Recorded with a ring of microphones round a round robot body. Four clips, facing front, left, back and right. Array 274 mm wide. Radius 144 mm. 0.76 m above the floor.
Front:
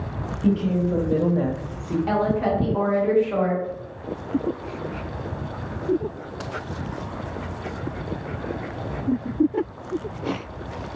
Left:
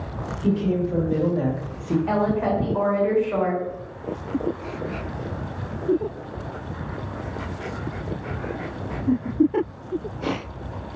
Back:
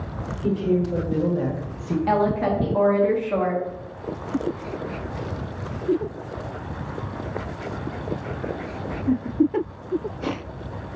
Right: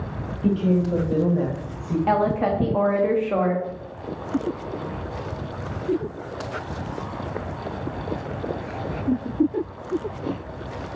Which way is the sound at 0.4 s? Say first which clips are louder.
Right 1 dB, even; 45° right.